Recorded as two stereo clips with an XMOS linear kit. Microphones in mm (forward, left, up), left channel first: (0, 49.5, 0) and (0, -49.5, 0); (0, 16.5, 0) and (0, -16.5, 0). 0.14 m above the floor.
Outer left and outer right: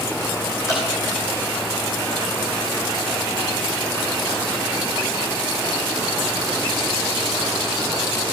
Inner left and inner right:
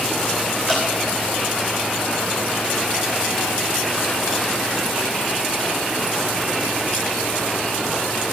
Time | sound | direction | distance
0.7 | dripping | 30° left (ahead or behind) | 5.5 m